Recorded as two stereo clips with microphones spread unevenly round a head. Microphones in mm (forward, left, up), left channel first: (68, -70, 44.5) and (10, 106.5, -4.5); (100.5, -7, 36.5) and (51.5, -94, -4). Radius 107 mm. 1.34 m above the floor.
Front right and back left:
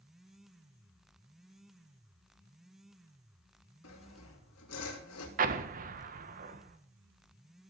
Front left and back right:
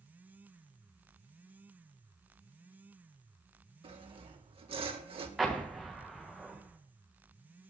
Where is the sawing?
95° right, 3 m.